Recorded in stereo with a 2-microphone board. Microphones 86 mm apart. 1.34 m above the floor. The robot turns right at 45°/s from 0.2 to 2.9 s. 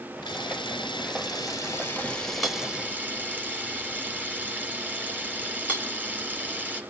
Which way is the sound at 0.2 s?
80° left.